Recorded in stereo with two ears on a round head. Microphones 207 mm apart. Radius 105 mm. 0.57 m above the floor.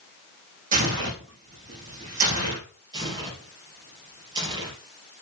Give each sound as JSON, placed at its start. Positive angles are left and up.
{"t": 0.7, "sound": "tearing paper", "side_deg": -35, "distance_m": 6.0}
{"t": 2.9, "sound": "tearing paper", "side_deg": -20, "distance_m": 3.5}